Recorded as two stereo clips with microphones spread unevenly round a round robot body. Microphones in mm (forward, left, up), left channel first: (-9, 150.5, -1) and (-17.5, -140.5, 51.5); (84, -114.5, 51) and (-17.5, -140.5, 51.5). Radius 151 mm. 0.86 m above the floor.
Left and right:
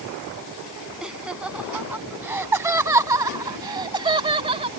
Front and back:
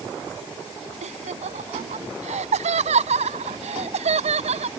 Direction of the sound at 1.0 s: Straight behind.